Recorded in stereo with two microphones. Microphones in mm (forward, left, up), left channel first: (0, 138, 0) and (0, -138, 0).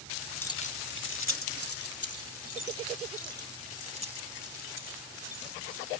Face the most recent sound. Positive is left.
turn(degrees=70)  # may be behind; listen again after turning